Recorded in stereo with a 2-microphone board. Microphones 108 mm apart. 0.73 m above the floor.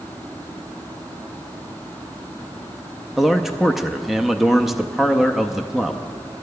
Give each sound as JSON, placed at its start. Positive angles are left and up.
{"t": 3.2, "sound": "a man speaking", "side_deg": 0, "distance_m": 0.6}